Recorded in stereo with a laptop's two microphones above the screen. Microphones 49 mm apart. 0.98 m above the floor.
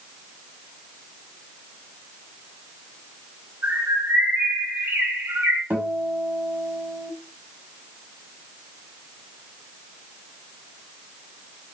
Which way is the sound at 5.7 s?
45° right (ahead or behind).